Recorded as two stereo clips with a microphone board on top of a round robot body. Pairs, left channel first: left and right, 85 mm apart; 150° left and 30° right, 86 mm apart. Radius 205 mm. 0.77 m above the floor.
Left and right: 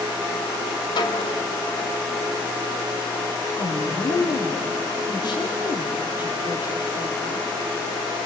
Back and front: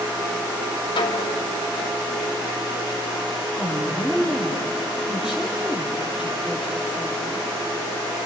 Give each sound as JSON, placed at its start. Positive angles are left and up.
{"t": 1.0, "sound": "a snare drum", "azimuth_deg": 120, "distance_m": 2.5}
{"t": 3.5, "sound": "a woman speaking", "azimuth_deg": 55, "distance_m": 3.0}